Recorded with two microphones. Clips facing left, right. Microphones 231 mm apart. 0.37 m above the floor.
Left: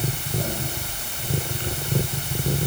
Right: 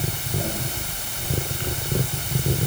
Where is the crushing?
I don't hear crushing.